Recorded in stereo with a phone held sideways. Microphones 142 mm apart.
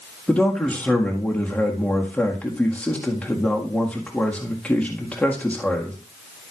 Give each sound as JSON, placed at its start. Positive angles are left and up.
{"t": 0.3, "sound": "a man speaking", "side_deg": 10, "distance_m": 1.7}